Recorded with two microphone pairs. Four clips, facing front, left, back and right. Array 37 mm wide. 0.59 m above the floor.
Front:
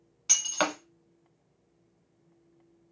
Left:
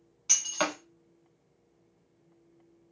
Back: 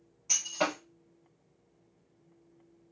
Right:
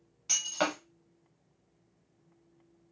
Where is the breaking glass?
5° left, 1.1 m.